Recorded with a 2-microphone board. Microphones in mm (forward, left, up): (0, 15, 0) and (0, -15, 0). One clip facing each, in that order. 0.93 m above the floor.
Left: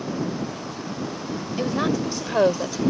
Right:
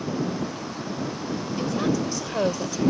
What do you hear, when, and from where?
1.6 s a woman speaking: 30° left (ahead or behind); by 2.8 s 25° left (ahead or behind)